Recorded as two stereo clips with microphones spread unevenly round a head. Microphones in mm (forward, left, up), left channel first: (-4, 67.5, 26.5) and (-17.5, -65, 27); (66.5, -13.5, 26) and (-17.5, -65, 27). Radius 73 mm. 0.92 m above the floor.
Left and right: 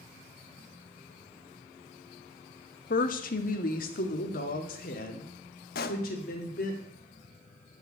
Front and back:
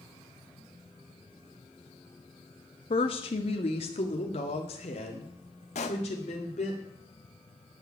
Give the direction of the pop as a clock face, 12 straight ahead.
10 o'clock.